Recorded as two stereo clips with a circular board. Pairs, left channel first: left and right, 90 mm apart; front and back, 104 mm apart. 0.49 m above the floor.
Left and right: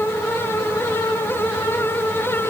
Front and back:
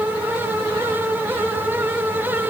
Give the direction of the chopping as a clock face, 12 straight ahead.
I don't hear chopping.